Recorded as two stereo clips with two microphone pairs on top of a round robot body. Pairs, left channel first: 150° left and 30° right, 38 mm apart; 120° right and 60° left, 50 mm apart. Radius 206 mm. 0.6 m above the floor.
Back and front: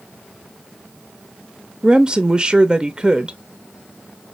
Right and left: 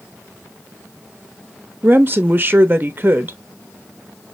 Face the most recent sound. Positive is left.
turn(degrees=25)